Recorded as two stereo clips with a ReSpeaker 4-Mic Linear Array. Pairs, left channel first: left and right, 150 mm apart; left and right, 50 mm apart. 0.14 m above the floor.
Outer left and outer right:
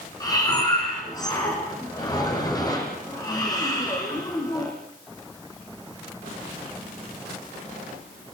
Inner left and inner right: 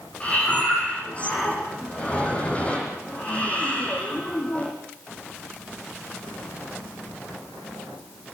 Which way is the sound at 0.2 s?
25° left (ahead or behind).